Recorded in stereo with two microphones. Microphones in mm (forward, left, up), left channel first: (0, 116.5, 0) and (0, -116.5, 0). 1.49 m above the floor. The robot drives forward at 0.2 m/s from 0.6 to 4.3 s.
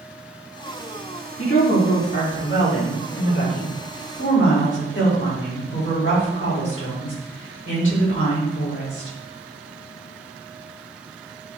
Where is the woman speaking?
60° left (ahead or behind), 3 m; by 9.2 s 55° left (ahead or behind), 3.5 m.